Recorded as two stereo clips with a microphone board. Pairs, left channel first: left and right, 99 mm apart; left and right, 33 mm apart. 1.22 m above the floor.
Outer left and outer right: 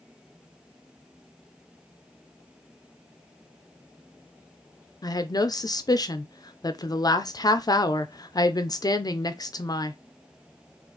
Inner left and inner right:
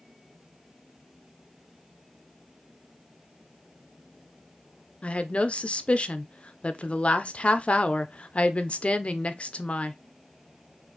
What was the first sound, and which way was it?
A woman speaking, 40° left (ahead or behind).